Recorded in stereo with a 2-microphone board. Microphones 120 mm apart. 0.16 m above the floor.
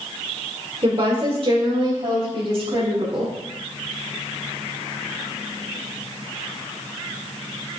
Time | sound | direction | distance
0.8 | a woman speaking | 50° right (ahead or behind) | 3 m